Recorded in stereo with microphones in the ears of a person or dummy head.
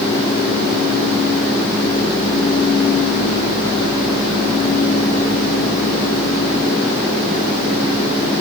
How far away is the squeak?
No squeak in this recording.